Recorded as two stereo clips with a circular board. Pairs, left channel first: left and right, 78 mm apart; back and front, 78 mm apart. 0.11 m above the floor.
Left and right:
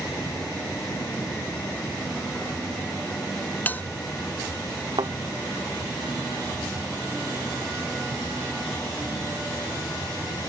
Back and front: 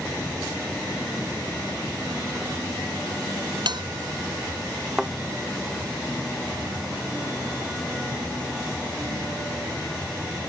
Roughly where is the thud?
Right.